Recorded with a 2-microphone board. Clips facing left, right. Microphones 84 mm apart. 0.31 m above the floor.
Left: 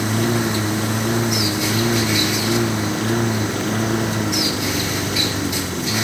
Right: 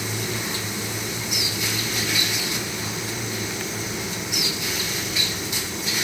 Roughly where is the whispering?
No whispering in this recording.